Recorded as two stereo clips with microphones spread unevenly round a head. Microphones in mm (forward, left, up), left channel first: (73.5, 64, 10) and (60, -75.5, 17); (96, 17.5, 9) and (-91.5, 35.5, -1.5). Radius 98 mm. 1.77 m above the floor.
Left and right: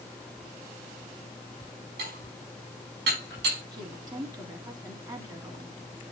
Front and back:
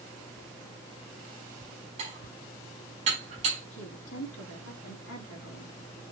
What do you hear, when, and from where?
2.0 s dishes clattering: 125° right, 4 m
3.7 s a woman speaking: 35° right, 3 m